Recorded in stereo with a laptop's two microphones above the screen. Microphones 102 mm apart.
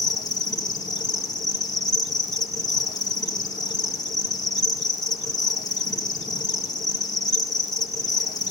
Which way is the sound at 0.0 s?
40° left (ahead or behind).